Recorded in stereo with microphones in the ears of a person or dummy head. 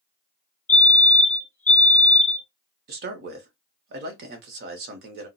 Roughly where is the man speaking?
Right.